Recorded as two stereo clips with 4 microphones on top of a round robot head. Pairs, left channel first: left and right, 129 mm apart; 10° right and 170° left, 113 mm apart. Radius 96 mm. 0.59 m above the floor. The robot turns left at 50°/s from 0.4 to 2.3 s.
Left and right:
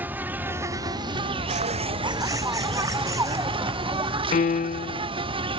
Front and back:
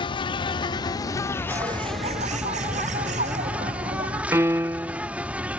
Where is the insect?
20° right; by 5.6 s 115° right.